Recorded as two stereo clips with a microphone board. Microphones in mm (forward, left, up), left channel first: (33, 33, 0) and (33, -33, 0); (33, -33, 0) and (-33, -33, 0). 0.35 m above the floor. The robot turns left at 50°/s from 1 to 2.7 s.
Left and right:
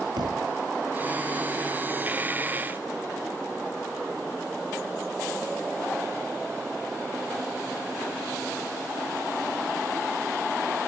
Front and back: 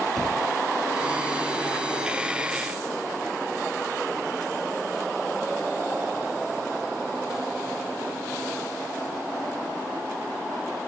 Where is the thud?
85° right.